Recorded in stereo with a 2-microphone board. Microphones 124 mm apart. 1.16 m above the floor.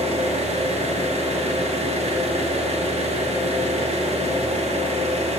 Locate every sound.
0.0 s an engine running: 60° right (ahead or behind), 0.7 m